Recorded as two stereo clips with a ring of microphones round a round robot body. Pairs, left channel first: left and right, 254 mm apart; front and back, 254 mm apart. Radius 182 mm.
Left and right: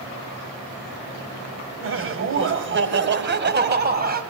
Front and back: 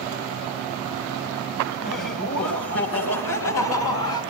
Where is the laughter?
60° right, 3.5 m; by 4.2 s 35° right, 4 m.